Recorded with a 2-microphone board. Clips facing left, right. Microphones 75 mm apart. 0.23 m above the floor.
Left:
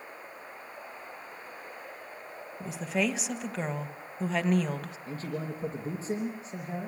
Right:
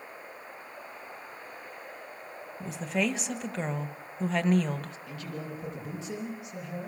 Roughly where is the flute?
No flute in this recording.